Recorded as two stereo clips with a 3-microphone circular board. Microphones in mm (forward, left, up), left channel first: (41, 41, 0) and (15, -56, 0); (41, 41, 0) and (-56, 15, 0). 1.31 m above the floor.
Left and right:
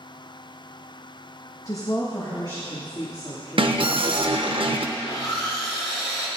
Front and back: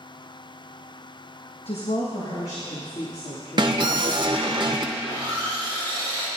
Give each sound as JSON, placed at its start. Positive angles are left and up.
{"t": 1.6, "sound": "a woman speaking", "azimuth_deg": 15, "distance_m": 0.9}
{"t": 3.6, "sound": "an alarm", "azimuth_deg": -125, "distance_m": 0.8}
{"t": 5.0, "sound": "sawing", "azimuth_deg": 60, "distance_m": 4.0}